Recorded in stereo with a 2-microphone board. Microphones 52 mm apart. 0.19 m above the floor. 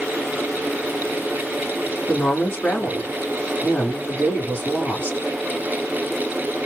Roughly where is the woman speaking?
Left.